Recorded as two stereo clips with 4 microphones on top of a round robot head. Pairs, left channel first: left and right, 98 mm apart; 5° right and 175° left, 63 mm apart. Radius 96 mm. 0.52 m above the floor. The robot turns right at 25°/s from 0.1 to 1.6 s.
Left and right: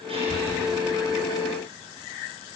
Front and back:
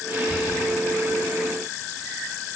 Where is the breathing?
115° right, 8 m; by 0.6 s 105° right, 8 m.